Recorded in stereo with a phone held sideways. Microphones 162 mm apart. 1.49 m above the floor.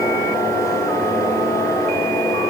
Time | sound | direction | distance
0.0 | a fan | 20° left (ahead or behind) | 5 m